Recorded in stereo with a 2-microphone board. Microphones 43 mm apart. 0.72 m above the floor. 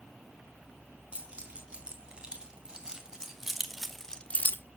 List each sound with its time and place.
1.1 s keys jangling: 25° right (ahead or behind), 4.5 m; by 4.6 s 55° left (ahead or behind), 0.7 m